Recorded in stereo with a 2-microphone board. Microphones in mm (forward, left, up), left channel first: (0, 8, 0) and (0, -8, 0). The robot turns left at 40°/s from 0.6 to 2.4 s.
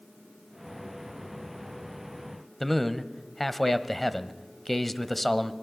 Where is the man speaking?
15° left (ahead or behind), 1.2 m.